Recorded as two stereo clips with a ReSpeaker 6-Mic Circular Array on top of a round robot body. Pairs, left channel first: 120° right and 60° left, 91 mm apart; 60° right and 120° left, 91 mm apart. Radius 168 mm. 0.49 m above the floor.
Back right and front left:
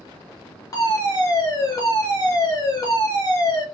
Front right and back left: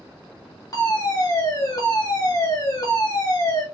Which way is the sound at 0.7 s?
90° right.